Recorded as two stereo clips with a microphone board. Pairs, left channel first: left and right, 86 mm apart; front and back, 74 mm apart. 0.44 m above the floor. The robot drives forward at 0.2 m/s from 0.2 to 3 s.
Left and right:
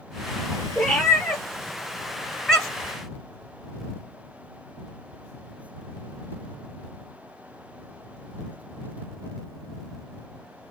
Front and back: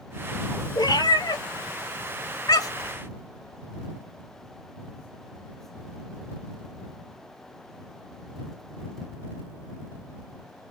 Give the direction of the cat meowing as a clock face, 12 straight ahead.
12 o'clock.